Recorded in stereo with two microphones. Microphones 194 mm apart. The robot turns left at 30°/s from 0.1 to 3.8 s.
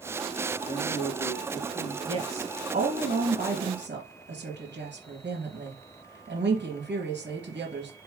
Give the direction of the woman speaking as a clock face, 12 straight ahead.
1 o'clock.